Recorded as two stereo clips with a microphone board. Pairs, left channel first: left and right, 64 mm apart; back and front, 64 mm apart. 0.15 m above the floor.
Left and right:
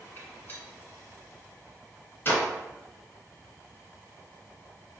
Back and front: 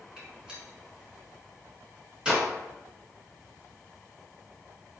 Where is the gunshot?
70° left, 1.8 m.